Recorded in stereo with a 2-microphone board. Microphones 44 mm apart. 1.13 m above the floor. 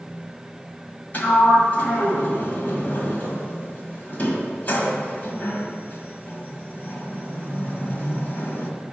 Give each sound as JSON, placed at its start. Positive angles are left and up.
{"t": 1.1, "sound": "a sliding door", "side_deg": 45, "distance_m": 1.7}